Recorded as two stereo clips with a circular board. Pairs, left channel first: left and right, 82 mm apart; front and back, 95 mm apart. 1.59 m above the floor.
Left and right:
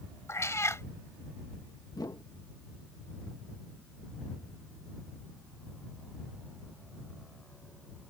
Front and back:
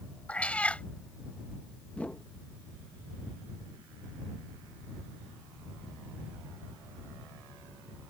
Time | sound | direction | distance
0.3 | a cat meowing | 65° left | ?
1.9 | a whoosh | 70° left | ?